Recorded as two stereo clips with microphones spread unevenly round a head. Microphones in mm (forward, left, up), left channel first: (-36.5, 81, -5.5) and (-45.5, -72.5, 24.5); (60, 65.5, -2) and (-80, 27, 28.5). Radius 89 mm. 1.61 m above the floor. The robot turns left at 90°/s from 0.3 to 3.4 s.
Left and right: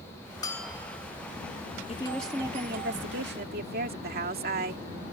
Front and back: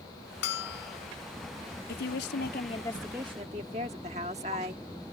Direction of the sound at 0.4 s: 15° left.